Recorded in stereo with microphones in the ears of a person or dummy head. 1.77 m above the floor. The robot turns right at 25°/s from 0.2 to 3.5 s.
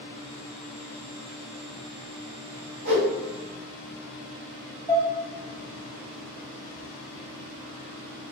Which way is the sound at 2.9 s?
60° right (ahead or behind).